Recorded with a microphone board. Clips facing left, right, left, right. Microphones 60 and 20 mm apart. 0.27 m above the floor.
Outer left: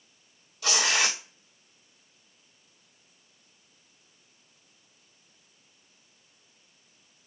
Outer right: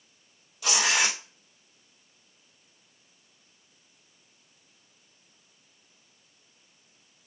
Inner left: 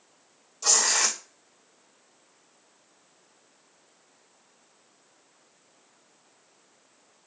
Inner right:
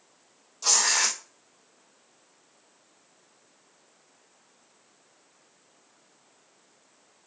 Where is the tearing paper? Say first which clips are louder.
Outer right 1 dB, even; 5° right (ahead or behind), 1.7 m.